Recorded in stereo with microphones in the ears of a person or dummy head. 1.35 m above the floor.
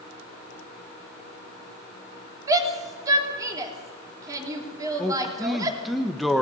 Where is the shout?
20° right (ahead or behind), 3.5 m.